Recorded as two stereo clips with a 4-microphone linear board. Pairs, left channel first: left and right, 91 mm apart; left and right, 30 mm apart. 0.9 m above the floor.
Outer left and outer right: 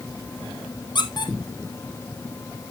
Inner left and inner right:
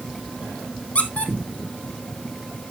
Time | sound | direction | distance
0.9 | a squeak | 50° left (ahead or behind) | 1.5 m